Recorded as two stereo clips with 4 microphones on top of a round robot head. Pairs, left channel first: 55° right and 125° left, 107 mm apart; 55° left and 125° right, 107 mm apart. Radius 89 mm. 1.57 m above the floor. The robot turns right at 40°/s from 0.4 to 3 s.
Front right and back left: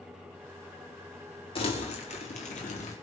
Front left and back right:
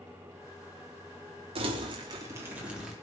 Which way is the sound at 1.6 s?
90° right.